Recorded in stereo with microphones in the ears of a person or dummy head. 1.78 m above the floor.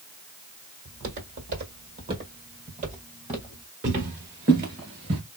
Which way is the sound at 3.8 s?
20° right (ahead or behind).